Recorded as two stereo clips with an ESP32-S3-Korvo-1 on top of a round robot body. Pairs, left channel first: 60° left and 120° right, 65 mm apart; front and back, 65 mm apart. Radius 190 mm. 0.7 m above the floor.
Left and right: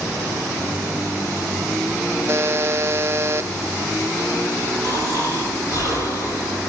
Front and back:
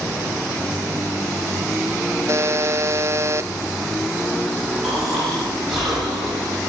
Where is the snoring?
100° left, 7 m.